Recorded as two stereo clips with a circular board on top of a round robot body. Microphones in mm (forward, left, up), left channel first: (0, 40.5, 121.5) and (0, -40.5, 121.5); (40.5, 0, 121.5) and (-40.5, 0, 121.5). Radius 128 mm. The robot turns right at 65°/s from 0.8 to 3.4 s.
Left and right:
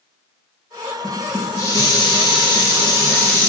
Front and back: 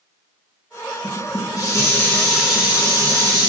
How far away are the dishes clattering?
About 1.4 m.